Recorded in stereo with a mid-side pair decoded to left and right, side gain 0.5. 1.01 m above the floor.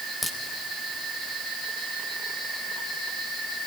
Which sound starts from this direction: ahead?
A crack, at 0.2 s.